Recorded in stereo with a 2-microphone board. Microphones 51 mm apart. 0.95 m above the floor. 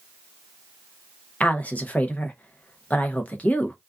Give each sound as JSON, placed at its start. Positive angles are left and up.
{"t": 1.4, "sound": "a woman speaking", "side_deg": 30, "distance_m": 0.6}